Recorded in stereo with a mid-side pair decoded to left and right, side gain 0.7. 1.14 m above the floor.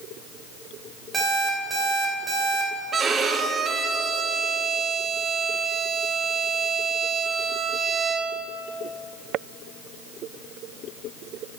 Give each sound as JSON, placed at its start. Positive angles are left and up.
{"t": 1.1, "sound": "an alarm clock", "azimuth_deg": -20, "distance_m": 3.0}
{"t": 2.9, "sound": "a violin", "azimuth_deg": -25, "distance_m": 1.0}